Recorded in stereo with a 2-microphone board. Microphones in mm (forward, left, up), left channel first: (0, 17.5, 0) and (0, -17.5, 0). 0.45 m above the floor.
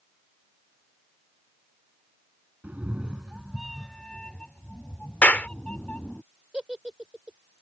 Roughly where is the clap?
Left.